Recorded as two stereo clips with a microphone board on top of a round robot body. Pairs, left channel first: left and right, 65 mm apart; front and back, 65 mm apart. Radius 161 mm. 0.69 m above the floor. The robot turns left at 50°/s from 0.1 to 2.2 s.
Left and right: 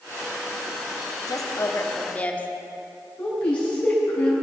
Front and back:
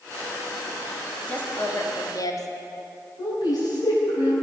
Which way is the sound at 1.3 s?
70° left.